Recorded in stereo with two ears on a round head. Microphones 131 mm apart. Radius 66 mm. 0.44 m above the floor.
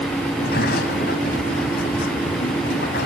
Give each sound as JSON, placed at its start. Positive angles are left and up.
{"t": 0.3, "sound": "a sliding door", "side_deg": 70, "distance_m": 3.5}